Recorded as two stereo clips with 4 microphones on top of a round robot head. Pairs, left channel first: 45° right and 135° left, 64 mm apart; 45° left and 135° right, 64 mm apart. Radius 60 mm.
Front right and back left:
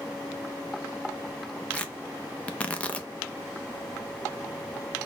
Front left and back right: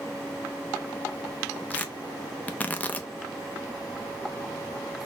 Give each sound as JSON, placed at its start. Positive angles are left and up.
{"t": 1.7, "sound": "tearing paper", "azimuth_deg": 5, "distance_m": 0.7}